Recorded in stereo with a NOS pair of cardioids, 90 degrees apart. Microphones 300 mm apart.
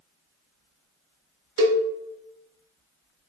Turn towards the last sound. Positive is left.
turn(degrees=-55)